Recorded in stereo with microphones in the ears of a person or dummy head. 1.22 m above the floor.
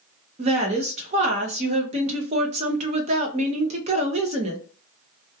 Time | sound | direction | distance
0.4 | a woman speaking | 30° right (ahead or behind) | 0.5 m